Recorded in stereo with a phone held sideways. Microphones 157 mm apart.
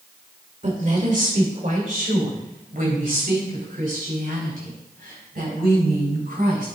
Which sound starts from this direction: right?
A woman speaking, at 0.6 s.